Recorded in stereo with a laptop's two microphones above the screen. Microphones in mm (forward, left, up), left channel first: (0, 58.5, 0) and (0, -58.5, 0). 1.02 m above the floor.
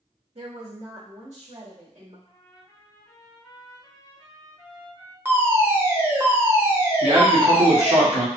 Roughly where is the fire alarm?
Centre.